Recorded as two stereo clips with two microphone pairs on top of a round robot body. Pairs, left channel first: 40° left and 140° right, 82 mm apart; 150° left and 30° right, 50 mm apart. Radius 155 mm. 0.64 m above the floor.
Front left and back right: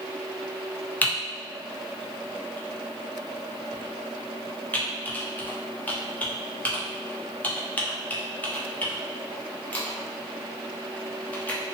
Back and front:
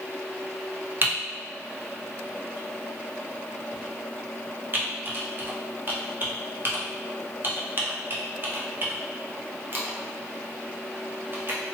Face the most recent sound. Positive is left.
turn(degrees=-30)